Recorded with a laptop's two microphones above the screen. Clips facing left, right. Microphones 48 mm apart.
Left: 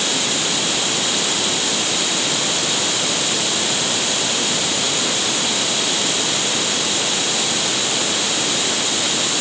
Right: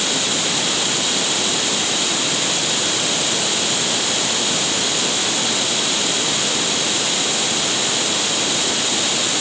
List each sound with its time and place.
Only background noise.